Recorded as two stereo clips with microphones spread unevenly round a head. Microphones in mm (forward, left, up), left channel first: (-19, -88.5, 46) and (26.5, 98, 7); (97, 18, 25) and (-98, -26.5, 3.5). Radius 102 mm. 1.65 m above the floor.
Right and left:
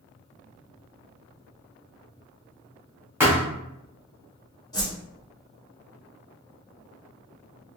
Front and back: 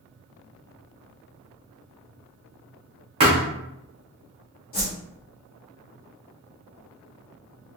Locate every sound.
3.2 s a thud: straight behind, 1.3 m
4.7 s a whoosh: 30° right, 1.3 m